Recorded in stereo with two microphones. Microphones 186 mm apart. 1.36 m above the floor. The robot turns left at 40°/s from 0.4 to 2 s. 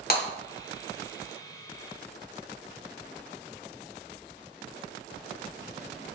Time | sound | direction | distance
0.1 | breaking glass | 50° left (ahead or behind) | 1.6 m